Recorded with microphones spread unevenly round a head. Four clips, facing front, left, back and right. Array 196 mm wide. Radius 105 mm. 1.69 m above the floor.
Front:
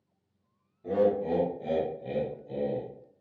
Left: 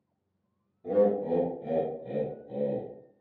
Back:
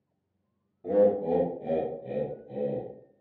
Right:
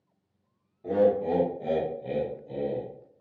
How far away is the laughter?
About 0.7 m.